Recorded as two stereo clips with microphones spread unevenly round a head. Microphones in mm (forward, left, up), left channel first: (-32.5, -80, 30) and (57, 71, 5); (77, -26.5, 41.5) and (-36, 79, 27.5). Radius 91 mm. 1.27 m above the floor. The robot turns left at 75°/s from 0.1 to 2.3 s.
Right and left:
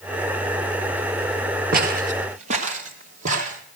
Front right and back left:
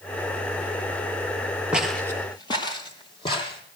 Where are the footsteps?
50° left, 1.5 m; by 3.6 s 10° left, 2.5 m.